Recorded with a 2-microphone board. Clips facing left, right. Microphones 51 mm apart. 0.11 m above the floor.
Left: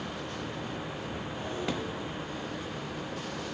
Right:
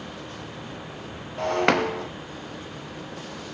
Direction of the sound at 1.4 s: 80° right.